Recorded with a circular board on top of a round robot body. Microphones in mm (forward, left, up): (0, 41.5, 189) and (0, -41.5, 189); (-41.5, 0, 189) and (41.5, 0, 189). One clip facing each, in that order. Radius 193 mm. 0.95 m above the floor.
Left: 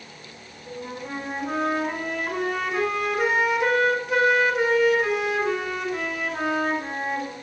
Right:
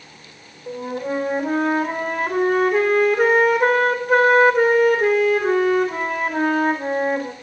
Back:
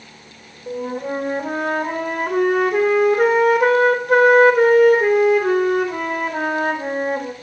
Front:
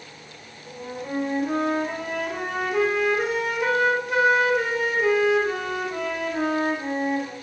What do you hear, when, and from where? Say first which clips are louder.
0.7 s a flute: right 8 dB, back 8 dB; 135° right, 1.4 m